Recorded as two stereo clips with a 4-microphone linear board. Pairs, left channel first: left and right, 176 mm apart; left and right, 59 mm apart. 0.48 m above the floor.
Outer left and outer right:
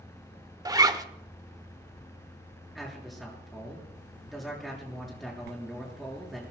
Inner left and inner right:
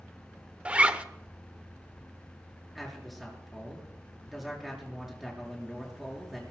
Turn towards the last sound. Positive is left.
turn(degrees=0)  # may be behind; listen again after turning